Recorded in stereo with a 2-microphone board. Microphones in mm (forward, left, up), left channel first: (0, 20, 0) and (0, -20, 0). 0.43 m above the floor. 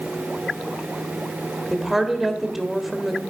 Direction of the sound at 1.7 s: 5° right (ahead or behind).